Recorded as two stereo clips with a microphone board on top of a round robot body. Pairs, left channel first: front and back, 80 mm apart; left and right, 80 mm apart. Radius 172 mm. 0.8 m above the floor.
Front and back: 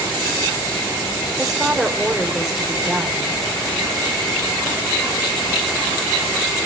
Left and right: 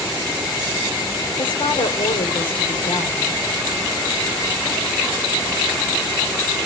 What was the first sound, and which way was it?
A woman speaking, 90° left.